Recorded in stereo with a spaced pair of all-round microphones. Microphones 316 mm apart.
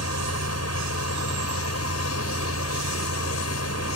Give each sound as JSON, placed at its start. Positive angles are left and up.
{"t": 0.0, "sound": "a fan", "side_deg": 55}